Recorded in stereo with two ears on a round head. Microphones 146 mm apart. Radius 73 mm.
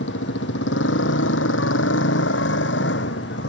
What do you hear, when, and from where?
0.0 s a motorcycle: 80° left; by 3.5 s 75° left (ahead or behind)